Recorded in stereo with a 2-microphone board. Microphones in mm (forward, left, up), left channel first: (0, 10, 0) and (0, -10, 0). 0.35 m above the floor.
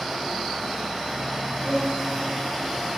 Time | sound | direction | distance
1.6 | a violin | 60° left (ahead or behind) | 4 m